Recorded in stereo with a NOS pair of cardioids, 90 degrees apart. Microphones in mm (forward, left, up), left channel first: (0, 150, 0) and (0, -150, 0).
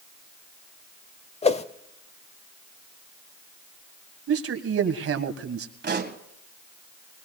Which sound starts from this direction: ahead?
A whoosh, at 1.4 s.